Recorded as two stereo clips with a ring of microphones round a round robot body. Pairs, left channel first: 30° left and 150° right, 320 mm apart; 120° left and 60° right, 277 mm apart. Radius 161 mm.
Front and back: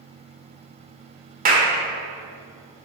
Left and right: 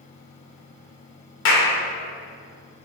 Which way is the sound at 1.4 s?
155° left.